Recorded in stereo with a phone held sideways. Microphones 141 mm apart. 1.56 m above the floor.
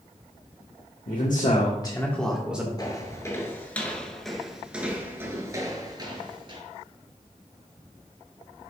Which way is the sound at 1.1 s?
80° left.